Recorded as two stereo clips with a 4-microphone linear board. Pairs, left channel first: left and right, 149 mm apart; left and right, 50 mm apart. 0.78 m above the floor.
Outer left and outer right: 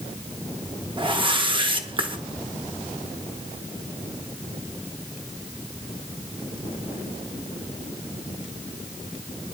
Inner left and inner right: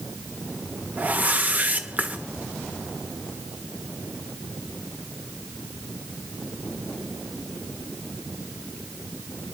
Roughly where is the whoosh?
Right.